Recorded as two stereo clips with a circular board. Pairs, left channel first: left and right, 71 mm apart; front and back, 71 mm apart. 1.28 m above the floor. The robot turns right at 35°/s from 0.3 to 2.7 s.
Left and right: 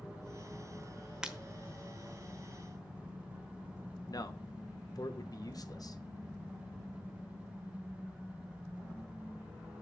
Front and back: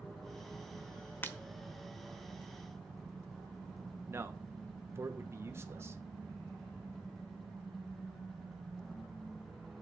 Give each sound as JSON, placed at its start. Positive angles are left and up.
{"t": 1.2, "sound": "breaking glass", "azimuth_deg": -25, "distance_m": 1.0}
{"t": 4.1, "sound": "a man speaking", "azimuth_deg": 125, "distance_m": 1.1}